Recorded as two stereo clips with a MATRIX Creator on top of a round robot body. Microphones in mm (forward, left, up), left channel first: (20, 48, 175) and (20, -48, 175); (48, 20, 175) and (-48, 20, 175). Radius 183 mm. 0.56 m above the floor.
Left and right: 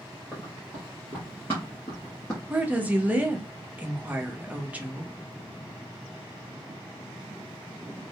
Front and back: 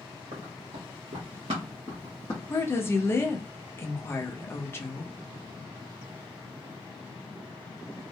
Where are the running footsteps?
175° right, 1.5 m; by 2.4 s 40° left, 0.7 m.